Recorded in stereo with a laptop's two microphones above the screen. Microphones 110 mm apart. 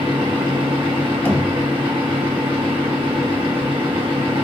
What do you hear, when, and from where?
0.0 s a fan: 45° right (ahead or behind), 0.9 m
1.2 s knocking: 15° left (ahead or behind), 0.7 m